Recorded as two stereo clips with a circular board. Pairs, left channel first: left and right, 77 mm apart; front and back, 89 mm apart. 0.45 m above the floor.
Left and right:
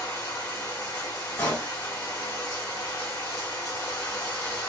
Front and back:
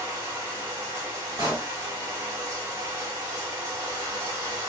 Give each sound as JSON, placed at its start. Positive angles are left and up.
{"t": 0.0, "sound": "running water", "azimuth_deg": 125, "distance_m": 1.8}
{"t": 1.4, "sound": "a pop", "azimuth_deg": 145, "distance_m": 1.8}